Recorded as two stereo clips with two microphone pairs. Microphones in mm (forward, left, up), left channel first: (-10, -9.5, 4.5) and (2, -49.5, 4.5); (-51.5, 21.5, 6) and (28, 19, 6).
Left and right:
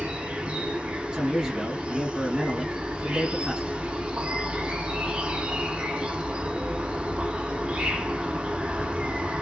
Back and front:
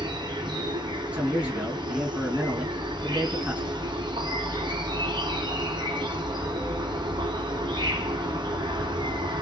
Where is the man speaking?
40° right, 1.6 m.